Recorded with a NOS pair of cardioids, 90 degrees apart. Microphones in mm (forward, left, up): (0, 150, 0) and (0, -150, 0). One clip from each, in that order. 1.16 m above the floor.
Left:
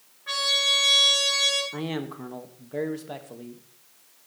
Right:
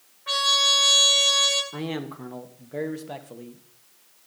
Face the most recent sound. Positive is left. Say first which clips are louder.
# even
turn(degrees=-5)